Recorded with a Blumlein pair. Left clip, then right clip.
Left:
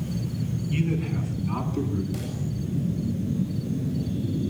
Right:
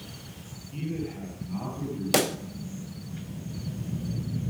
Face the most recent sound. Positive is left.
turn(degrees=-50)